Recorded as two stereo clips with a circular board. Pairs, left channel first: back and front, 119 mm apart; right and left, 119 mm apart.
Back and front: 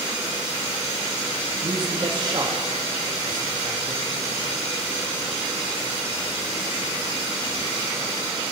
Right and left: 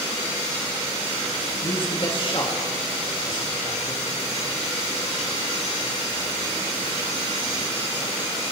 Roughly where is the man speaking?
Ahead right.